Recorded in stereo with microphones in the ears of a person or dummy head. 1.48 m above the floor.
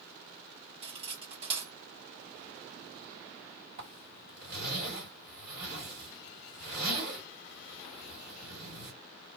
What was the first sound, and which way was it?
Cutlery clinking, 25° right (ahead or behind).